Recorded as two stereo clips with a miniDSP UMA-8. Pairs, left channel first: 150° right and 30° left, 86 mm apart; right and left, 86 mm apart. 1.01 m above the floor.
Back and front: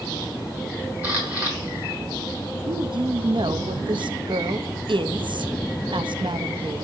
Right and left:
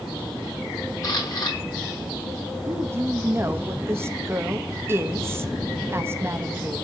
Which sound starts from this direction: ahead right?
A camera shutter, at 1.0 s.